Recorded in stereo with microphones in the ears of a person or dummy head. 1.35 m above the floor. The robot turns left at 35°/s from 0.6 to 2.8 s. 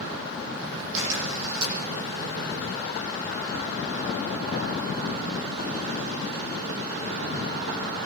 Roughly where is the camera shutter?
Right.